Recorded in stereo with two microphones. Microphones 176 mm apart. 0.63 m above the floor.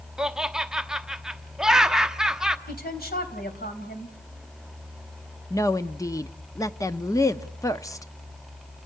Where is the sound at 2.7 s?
65° left (ahead or behind), 3.5 m.